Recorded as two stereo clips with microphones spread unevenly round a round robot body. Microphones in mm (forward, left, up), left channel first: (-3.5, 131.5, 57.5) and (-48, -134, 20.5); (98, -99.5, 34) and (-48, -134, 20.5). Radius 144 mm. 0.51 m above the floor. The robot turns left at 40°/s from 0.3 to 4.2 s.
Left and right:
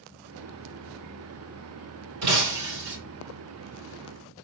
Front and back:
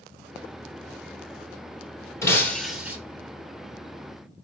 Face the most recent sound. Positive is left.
turn(degrees=-140)